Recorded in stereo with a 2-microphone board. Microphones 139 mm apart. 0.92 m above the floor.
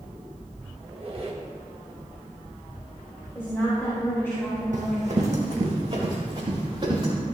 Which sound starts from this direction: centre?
A woman speaking, at 3.4 s.